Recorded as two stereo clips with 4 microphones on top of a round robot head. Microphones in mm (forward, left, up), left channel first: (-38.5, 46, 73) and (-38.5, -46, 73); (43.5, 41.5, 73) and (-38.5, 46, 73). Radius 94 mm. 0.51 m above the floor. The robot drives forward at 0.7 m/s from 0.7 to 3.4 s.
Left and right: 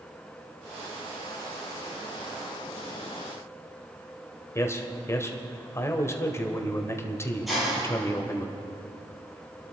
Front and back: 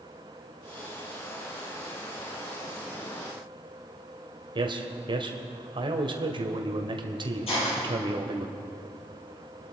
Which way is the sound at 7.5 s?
Straight ahead.